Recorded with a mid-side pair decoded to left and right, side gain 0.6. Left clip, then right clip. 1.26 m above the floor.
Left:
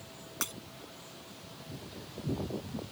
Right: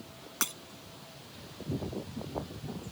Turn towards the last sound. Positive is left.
turn(degrees=-25)